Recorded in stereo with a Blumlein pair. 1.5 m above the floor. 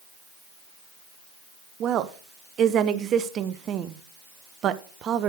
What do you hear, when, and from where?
1.8 s a woman speaking: 30° right, 0.8 m